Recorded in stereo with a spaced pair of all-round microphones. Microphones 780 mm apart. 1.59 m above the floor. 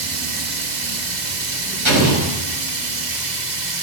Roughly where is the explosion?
Right.